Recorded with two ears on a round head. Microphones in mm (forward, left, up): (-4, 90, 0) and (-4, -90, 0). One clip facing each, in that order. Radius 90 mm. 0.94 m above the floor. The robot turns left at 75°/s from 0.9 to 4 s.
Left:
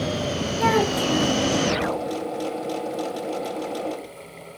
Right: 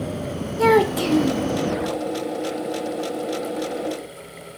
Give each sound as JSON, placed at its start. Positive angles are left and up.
{"t": 0.6, "sound": "a child speaking", "azimuth_deg": -115, "distance_m": 1.3}